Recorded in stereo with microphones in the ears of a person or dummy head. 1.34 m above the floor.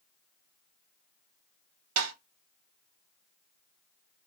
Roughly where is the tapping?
Right.